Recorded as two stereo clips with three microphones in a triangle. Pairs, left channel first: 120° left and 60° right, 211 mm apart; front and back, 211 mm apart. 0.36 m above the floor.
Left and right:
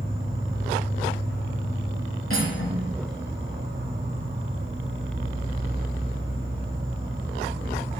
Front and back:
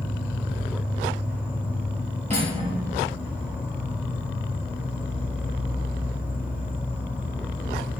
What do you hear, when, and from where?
0.0 s an insect: 105° right, 2.5 m
2.3 s cutlery clinking: 120° left, 4 m